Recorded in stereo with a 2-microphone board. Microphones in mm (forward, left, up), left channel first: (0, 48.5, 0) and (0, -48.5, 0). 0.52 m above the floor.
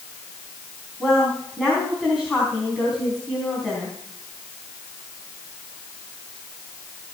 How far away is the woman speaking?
About 3.5 m.